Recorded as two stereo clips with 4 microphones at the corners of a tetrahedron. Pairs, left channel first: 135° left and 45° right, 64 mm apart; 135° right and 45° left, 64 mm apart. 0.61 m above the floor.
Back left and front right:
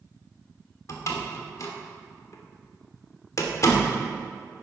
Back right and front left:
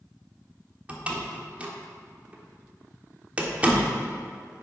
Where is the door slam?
110° left, 1.2 m.